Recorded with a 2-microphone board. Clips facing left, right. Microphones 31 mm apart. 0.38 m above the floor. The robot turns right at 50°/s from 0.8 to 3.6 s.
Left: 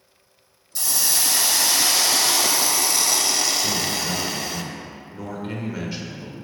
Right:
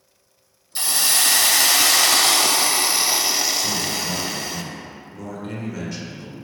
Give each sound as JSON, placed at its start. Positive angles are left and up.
{"t": 0.8, "sound": "a hiss", "azimuth_deg": -140, "distance_m": 0.5}
{"t": 3.6, "sound": "a man speaking", "side_deg": 20, "distance_m": 1.0}